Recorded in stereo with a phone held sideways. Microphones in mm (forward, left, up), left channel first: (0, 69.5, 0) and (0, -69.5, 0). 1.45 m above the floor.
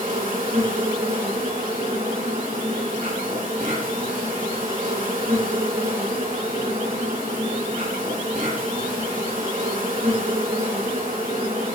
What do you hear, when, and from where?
0.0 s an insect: 70° right (ahead or behind), 2 m